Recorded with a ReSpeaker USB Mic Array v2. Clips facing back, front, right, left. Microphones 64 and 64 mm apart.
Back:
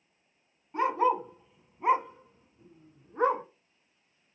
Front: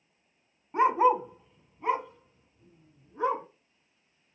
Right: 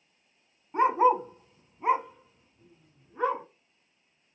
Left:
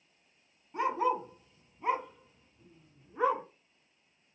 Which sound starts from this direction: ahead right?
A dog barking, at 0.7 s.